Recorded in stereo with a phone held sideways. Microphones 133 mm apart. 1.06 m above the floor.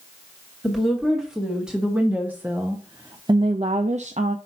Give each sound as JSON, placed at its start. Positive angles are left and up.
{"t": 0.6, "sound": "a woman speaking", "side_deg": 0, "distance_m": 2.0}